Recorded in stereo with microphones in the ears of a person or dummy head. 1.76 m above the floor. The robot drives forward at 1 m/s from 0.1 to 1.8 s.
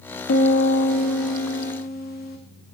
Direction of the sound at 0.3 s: 50° left (ahead or behind).